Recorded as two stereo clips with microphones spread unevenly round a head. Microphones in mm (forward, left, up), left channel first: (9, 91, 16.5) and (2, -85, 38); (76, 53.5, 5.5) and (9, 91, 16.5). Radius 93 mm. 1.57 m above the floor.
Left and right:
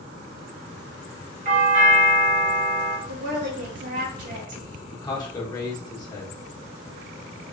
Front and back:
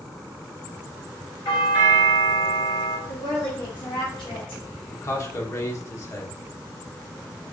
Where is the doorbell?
45° right, 1.2 m.